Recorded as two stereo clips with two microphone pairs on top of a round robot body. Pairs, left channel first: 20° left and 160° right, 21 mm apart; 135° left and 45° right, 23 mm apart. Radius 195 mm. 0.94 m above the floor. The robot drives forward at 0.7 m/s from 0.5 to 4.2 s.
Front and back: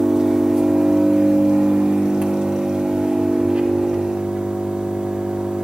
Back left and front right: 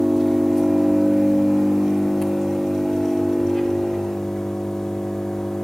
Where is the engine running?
110° right, 1.4 m; by 5.7 s 155° right, 3.5 m.